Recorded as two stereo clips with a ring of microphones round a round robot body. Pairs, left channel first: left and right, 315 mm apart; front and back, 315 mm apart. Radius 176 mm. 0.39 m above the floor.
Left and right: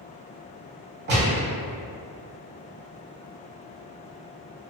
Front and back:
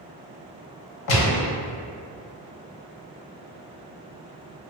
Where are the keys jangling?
I don't hear keys jangling.